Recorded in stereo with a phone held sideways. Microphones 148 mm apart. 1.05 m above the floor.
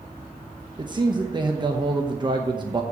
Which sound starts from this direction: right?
A man speaking, at 0.8 s.